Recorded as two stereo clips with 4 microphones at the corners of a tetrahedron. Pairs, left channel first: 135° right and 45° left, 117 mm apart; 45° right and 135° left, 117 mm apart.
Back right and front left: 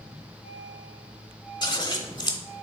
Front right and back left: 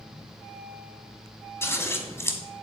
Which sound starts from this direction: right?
Scissors, at 1.6 s.